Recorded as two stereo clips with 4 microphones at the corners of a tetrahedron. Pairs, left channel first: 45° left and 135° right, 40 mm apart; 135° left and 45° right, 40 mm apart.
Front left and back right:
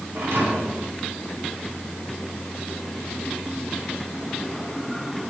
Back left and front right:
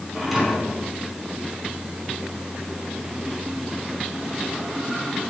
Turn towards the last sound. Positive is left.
turn(degrees=-130)